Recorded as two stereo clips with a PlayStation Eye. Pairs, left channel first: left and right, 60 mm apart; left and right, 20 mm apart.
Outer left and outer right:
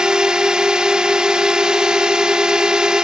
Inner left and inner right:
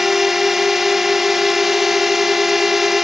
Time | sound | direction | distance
0.0 | a drone | 15° right (ahead or behind) | ?